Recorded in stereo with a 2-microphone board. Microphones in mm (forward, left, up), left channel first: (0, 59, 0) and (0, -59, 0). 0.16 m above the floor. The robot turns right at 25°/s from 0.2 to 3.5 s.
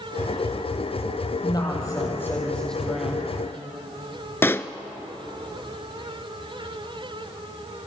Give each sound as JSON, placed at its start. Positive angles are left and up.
{"t": 1.4, "sound": "a woman speaking", "azimuth_deg": 145, "distance_m": 5.5}
{"t": 4.4, "sound": "a pop", "side_deg": 20, "distance_m": 0.7}